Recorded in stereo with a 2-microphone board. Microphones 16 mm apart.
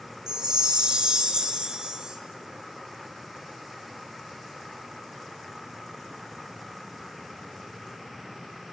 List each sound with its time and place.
0.3 s a chime: 60° right (ahead or behind), 2.5 m